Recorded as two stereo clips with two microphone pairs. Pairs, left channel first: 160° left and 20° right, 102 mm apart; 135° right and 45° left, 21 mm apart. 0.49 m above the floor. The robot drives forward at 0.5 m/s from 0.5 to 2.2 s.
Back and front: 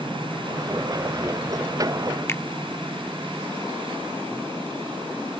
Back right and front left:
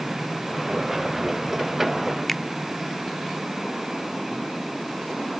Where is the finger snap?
155° left.